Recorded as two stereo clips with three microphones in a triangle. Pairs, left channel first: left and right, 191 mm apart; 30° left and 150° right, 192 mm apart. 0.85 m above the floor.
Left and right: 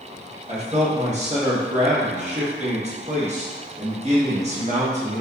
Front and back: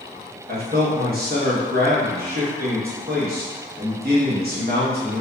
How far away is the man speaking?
About 0.9 m.